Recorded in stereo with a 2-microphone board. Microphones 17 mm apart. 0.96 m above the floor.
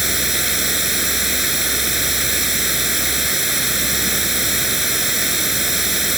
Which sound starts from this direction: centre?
Running water, at 0.0 s.